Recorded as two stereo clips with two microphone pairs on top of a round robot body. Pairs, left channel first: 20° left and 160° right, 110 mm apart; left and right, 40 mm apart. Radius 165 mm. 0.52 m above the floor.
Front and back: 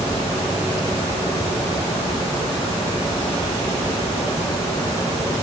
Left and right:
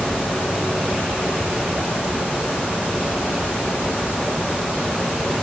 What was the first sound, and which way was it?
Only background noise.